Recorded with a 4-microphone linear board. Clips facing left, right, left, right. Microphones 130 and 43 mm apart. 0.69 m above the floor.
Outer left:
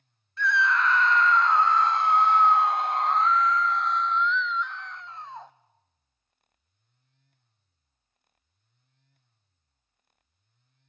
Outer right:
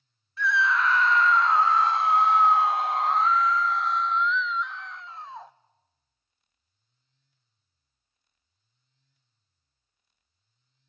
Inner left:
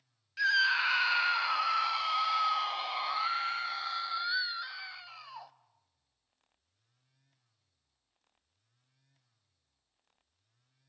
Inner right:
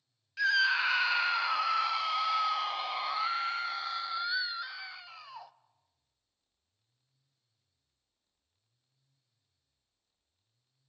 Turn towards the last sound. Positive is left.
turn(degrees=0)  # may be behind; listen again after turning